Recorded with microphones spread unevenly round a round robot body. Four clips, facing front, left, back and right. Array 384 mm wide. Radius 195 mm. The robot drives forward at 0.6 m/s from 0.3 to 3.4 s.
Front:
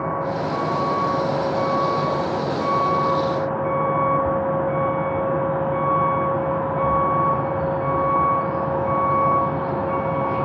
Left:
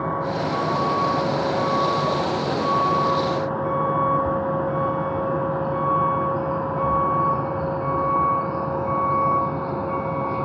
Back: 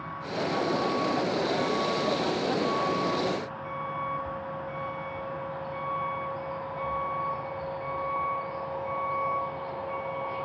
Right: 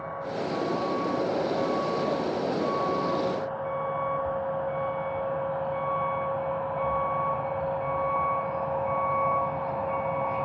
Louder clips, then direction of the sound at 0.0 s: Left 8 dB, front 9 dB; 50° left.